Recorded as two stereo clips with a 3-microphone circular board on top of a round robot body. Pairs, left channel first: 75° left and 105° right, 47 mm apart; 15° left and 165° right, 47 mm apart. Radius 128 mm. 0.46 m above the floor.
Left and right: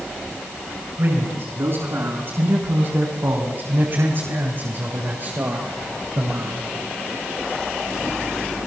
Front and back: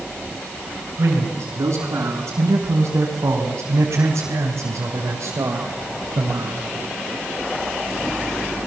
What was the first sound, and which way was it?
A man speaking, 140° right.